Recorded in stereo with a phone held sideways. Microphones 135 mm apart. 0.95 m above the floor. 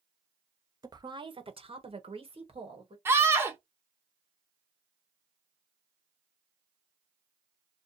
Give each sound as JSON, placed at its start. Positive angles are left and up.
{"t": 0.8, "sound": "a woman speaking", "side_deg": -30, "distance_m": 0.6}
{"t": 3.0, "sound": "a scream", "side_deg": -20, "distance_m": 0.6}